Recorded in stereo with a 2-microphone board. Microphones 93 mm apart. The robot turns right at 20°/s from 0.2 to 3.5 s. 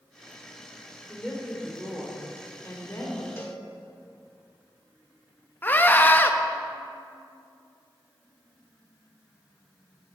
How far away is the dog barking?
No dog barking in this recording.